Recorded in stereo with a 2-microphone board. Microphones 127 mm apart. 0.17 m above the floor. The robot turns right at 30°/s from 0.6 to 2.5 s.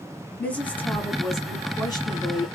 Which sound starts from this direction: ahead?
A woman speaking, at 0.4 s.